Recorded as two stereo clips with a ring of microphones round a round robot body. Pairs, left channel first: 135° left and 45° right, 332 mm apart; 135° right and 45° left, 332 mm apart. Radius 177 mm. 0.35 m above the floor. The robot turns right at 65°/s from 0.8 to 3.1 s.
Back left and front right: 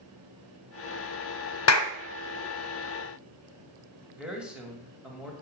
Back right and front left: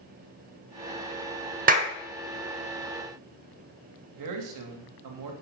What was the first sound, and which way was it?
A clap, 105° left.